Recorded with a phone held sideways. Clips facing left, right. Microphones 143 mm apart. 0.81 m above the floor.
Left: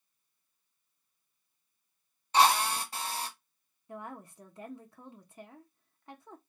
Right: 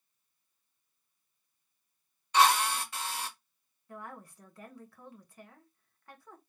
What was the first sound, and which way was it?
A drill, 35° left (ahead or behind).